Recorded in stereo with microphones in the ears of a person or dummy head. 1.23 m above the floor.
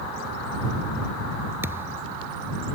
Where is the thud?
15° right (ahead or behind).